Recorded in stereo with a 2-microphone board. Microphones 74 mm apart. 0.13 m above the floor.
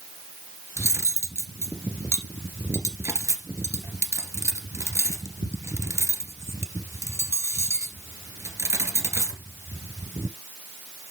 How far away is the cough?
I don't hear a cough.